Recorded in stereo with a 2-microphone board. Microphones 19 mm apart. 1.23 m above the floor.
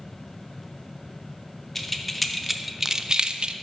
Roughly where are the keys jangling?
Centre.